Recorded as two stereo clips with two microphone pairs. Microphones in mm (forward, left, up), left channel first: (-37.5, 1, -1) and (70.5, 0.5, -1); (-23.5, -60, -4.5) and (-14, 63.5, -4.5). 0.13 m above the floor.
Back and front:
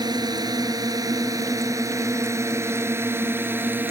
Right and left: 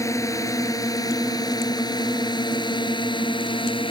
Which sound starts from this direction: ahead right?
A drone, at 0.0 s.